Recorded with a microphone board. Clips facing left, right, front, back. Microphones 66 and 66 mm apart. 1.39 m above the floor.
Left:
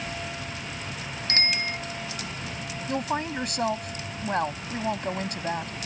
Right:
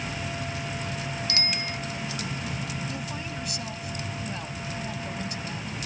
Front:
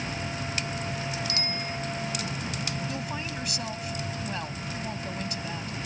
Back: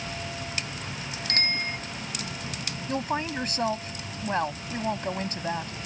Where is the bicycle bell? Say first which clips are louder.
Left 7 dB, back 3 dB; 140° left.